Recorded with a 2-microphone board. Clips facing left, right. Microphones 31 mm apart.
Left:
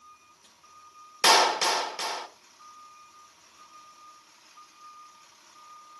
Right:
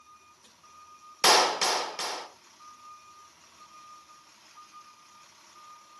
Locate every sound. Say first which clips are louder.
1.2 s a clap: left 1 dB; 10° left (ahead or behind), 1.1 m